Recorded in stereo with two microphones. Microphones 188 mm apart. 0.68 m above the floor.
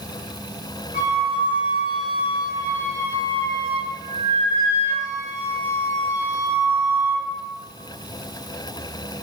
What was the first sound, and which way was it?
A flute, 50° left (ahead or behind).